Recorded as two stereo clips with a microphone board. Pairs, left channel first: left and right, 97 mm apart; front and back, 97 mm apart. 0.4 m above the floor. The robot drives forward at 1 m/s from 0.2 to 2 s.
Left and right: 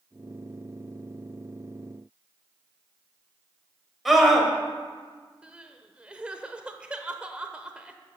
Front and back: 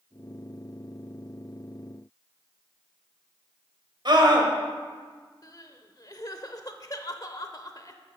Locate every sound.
4.0 s a scream: straight behind, 2 m
5.4 s crying: 15° right, 0.9 m